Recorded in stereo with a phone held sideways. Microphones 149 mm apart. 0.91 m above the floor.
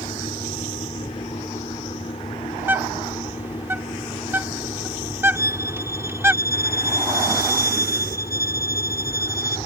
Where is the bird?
15° right (ahead or behind).